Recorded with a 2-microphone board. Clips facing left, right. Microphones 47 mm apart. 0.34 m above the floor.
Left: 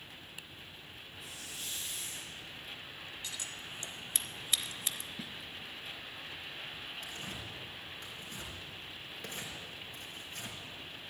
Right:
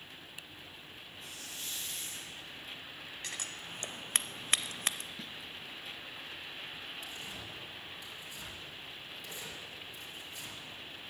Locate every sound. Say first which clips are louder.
1.2 s a hiss: even; 5° left (ahead or behind), 7 m
3.2 s scissors: right 3 dB; 50° right (ahead or behind), 0.5 m
5.2 s a snare drum: left 1 dB; 5° left (ahead or behind), 0.8 m
7.0 s tearing paper: left 1 dB; 55° left (ahead or behind), 3.5 m